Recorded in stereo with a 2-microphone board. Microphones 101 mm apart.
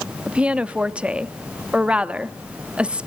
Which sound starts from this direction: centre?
A woman speaking, at 0.3 s.